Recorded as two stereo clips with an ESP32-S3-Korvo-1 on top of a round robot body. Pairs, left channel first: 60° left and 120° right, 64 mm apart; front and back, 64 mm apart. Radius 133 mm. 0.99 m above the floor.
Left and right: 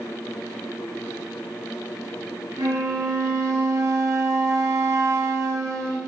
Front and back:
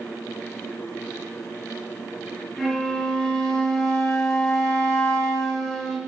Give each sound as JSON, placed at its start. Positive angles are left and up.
{"t": 2.6, "sound": "a flute", "azimuth_deg": -85, "distance_m": 0.6}